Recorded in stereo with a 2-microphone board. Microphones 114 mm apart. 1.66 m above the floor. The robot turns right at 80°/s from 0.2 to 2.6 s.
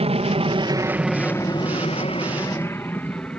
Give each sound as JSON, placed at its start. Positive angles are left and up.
{"t": 0.0, "sound": "an aircraft", "side_deg": -65}